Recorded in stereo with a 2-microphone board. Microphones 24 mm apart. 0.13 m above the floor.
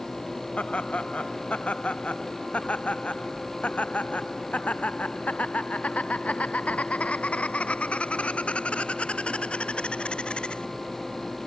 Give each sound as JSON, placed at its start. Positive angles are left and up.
{"t": 0.6, "sound": "laughter", "side_deg": 65}